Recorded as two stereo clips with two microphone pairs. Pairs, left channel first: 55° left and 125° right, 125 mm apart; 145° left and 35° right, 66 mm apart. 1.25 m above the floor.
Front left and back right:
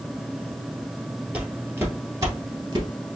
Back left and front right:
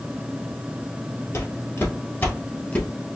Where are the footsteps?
160° left, 1.7 m; by 2.9 s 155° right, 1.6 m.